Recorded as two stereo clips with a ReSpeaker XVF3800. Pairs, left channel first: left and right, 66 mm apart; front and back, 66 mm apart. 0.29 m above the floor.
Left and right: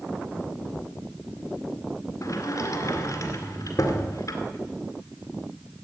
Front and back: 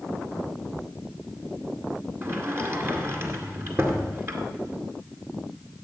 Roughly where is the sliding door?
Behind left.